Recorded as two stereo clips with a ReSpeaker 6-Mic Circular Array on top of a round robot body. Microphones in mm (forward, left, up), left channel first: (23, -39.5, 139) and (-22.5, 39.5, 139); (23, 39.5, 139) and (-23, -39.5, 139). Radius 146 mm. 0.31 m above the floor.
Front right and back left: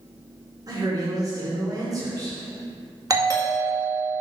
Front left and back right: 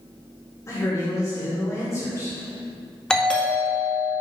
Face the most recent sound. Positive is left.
turn(degrees=135)